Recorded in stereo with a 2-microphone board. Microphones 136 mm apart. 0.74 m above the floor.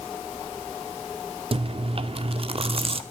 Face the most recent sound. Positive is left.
turn(degrees=-45)  # may be behind; listen again after turning